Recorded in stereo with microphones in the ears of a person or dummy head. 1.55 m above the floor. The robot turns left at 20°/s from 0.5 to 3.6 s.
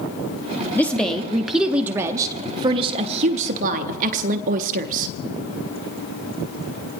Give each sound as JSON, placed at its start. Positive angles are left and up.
{"t": 0.8, "sound": "a woman speaking", "azimuth_deg": 10, "distance_m": 0.5}